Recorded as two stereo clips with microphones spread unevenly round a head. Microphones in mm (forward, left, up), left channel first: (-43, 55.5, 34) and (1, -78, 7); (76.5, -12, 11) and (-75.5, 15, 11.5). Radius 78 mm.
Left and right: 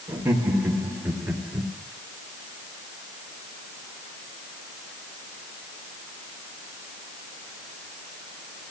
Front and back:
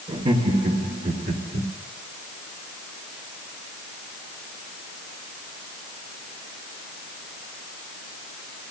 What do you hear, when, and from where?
0.1 s laughter: 140° right, 1.4 m; by 1.7 s 160° right, 1.9 m